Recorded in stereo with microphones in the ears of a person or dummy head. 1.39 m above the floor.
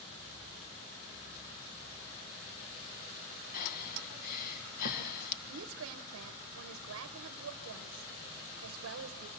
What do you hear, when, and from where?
3.5 s breathing: 50° left (ahead or behind), 1.6 m
5.5 s a woman speaking: 75° right (ahead or behind), 0.8 m